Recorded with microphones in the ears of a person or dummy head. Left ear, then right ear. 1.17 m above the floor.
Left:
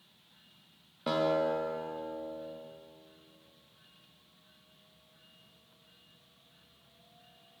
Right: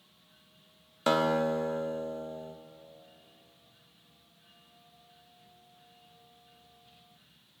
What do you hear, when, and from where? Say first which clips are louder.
1.1 s a guitar: right 2 dB; 50° right (ahead or behind), 0.9 m